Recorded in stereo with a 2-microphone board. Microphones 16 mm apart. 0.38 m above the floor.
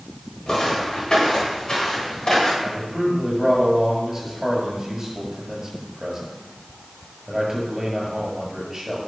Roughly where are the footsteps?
Left.